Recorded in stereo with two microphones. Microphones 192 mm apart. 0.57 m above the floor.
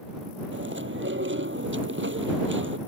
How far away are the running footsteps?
I don't hear running footsteps.